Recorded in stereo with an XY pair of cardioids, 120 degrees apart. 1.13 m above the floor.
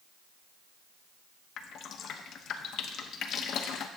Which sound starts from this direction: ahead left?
Dripping, at 1.6 s.